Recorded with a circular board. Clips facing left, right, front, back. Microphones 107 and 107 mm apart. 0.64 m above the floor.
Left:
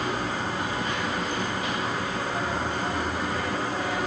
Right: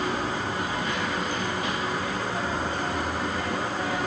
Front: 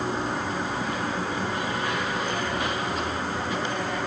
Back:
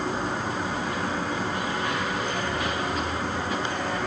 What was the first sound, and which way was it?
Only background noise.